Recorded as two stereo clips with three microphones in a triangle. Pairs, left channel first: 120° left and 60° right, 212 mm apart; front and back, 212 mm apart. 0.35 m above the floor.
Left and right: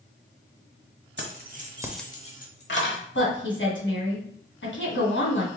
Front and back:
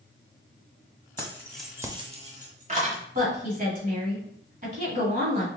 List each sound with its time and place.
1.2 s keys jangling: 75° right, 1.1 m; by 3.0 s 130° left, 1.4 m
3.1 s a woman speaking: 135° left, 2.5 m